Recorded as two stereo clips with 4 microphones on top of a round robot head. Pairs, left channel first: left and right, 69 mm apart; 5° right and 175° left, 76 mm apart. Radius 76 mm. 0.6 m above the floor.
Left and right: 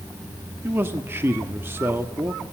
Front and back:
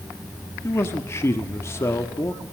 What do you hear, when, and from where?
0.6 s a man speaking: 45° right, 1.7 m